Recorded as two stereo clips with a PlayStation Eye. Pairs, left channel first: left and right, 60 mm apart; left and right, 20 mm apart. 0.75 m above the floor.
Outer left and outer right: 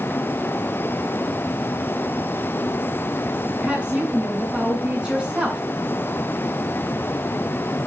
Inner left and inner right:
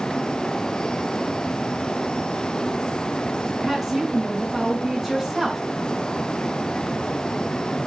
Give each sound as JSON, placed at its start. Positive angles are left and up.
{"t": 3.6, "sound": "a woman speaking", "side_deg": -15, "distance_m": 7.5}